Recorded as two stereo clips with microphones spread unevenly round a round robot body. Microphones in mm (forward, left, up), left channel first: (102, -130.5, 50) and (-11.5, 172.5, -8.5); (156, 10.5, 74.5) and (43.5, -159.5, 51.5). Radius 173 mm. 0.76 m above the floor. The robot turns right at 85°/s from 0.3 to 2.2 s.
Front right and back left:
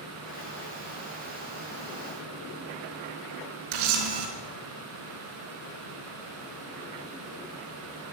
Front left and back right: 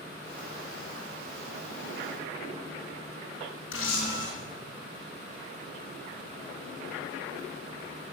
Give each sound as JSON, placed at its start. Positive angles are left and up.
{"t": 3.7, "sound": "a camera shutter", "azimuth_deg": 105, "distance_m": 3.5}